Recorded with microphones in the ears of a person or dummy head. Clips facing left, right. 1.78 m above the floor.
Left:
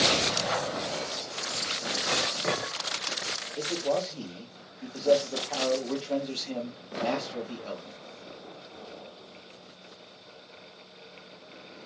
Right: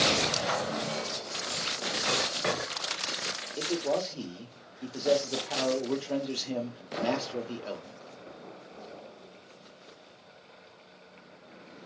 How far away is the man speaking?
About 1.2 m.